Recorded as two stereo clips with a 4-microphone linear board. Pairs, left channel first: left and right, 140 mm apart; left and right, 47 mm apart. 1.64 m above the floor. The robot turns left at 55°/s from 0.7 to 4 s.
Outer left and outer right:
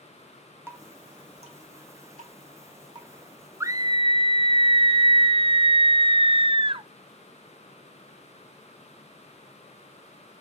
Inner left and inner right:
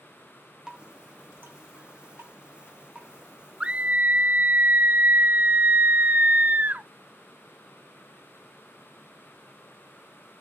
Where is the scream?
20° right (ahead or behind), 0.6 m; by 6.9 s 40° right (ahead or behind), 0.6 m.